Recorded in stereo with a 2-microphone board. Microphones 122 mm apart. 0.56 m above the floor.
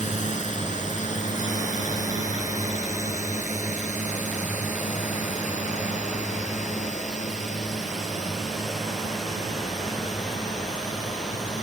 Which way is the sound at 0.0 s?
80° left.